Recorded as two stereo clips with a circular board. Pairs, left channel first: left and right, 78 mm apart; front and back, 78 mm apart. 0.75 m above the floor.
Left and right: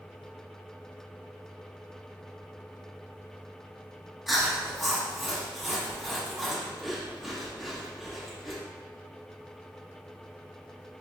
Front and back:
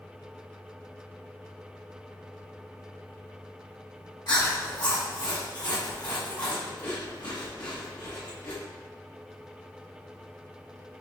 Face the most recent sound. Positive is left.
turn(degrees=0)